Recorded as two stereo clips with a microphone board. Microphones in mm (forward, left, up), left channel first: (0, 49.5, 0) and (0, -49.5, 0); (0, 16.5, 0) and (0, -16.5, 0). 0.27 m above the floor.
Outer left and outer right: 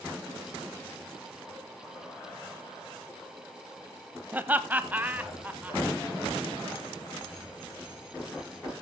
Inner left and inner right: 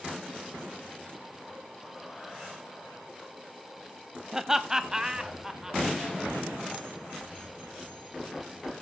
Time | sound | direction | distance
4.3 | laughter | 15° right (ahead or behind) | 1.1 m